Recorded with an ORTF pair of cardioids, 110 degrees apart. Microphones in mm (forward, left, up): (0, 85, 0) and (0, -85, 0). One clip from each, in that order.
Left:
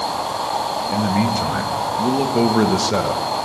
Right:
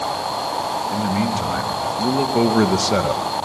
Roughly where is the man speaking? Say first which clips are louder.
Left 2 dB; ahead.